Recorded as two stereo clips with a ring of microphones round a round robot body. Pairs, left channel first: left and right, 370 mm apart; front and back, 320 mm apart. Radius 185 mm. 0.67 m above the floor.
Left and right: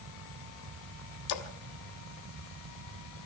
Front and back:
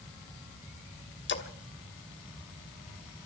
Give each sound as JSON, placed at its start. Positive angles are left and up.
{"t": 1.3, "sound": "a splash", "azimuth_deg": 55, "distance_m": 1.5}